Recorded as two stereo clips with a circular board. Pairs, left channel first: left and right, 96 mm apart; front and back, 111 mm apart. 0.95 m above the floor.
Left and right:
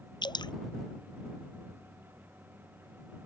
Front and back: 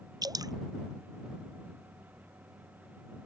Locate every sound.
0.2 s dripping: 125° left